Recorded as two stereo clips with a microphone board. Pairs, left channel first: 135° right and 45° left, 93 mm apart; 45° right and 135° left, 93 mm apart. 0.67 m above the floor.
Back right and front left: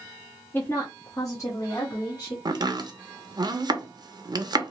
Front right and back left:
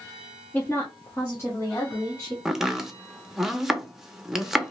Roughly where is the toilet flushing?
I don't hear a toilet flushing.